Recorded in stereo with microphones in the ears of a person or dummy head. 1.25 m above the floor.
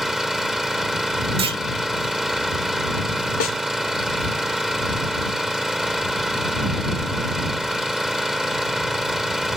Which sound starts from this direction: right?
A clunk, at 1.4 s.